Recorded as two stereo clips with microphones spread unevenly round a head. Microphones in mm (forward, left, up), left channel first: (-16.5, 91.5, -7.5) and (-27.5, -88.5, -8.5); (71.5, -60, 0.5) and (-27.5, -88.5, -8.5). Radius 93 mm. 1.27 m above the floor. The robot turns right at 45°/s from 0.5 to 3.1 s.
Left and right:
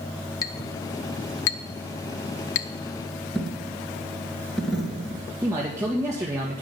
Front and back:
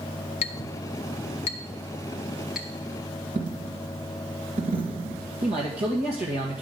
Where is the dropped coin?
175° left, 3 m.